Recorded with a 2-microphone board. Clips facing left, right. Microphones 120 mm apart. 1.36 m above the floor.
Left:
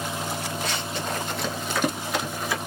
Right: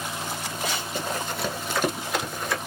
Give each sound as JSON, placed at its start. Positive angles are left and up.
{"t": 0.6, "sound": "running footsteps", "side_deg": -10, "distance_m": 1.9}